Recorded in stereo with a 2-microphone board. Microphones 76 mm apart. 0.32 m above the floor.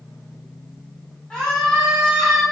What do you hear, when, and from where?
1.3 s a scream: 15° left (ahead or behind), 2 m; by 2.4 s 5° left (ahead or behind), 3.5 m